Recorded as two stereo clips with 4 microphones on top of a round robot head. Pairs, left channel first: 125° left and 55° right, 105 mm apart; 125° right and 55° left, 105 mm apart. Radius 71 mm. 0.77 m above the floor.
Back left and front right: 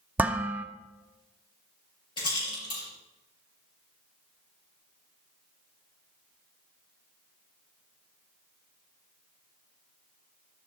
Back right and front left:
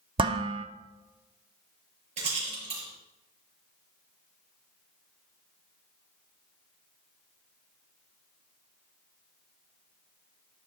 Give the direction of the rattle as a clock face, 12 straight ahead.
9 o'clock.